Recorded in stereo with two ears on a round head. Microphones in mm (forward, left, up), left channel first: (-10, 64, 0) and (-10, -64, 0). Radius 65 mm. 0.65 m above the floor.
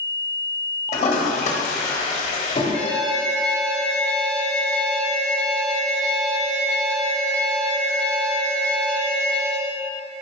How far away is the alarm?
About 1.7 m.